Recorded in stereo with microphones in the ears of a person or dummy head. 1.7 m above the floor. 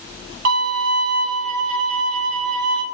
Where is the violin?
50° right (ahead or behind), 1.1 m.